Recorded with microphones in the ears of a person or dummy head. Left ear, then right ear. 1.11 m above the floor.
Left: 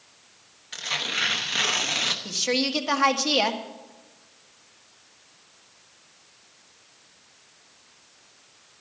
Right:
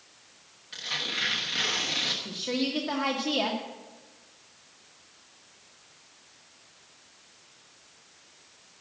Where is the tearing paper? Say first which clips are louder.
Left 4 dB; 35° left (ahead or behind), 1.0 m.